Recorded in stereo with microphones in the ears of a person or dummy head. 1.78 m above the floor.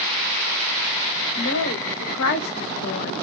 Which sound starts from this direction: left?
A woman speaking, at 1.4 s.